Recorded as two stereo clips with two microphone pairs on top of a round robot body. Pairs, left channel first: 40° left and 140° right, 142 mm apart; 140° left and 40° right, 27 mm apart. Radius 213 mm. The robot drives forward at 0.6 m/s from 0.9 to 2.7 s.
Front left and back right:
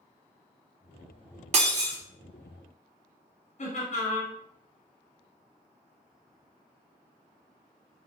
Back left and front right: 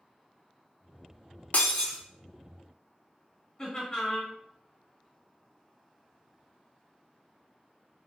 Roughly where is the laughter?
Left.